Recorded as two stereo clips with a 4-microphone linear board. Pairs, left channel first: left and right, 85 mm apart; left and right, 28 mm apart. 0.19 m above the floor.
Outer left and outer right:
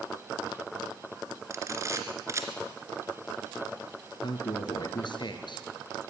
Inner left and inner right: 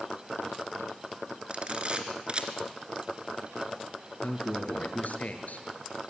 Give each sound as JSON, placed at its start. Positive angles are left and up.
{"t": 1.5, "sound": "a camera shutter", "side_deg": -35, "distance_m": 2.0}
{"t": 4.2, "sound": "a man speaking", "side_deg": 65, "distance_m": 4.0}